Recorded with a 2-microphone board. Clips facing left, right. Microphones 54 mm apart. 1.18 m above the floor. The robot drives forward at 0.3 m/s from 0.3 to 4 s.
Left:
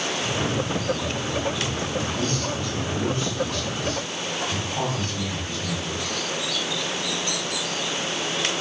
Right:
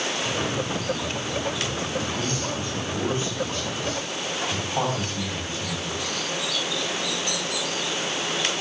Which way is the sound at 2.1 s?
30° right (ahead or behind).